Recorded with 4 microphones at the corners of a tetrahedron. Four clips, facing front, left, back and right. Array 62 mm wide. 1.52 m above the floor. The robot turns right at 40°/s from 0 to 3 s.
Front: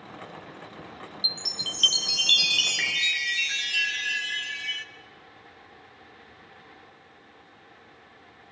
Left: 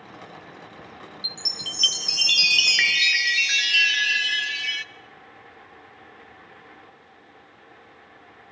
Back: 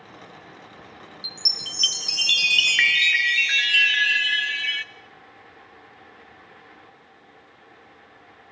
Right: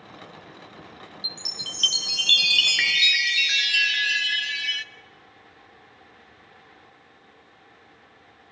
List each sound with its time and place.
1.2 s a chime: 105° left, 1.1 m; by 4.8 s 175° left, 1.1 m